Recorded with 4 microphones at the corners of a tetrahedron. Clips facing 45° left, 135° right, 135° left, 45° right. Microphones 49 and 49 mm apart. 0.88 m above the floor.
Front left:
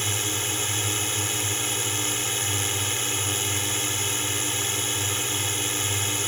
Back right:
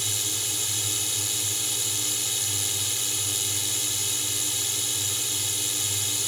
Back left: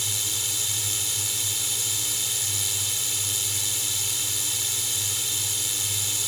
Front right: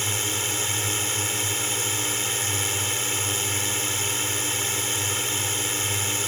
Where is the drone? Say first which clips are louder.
Front left 5 dB, front right 5 dB; straight ahead.